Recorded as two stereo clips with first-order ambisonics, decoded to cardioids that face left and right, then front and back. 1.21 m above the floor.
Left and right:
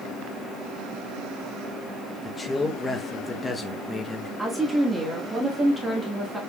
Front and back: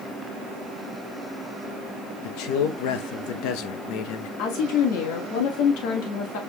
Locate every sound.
2.2 s a man speaking: 15° left, 0.9 m
4.4 s a woman speaking: 5° right, 1.4 m